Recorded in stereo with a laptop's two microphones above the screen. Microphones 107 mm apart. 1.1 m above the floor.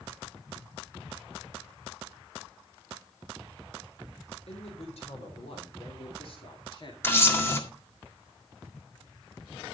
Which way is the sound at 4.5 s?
70° left (ahead or behind).